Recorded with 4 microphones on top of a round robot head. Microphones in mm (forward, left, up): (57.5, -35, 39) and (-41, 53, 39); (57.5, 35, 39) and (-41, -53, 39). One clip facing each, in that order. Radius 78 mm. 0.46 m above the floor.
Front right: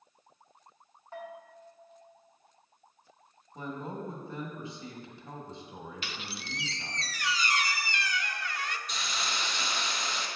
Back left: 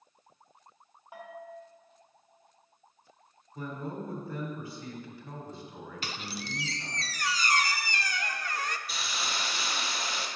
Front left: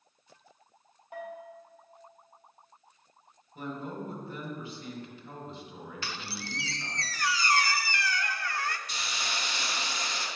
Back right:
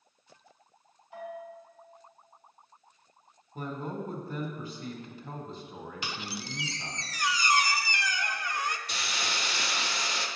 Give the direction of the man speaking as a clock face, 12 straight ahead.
3 o'clock.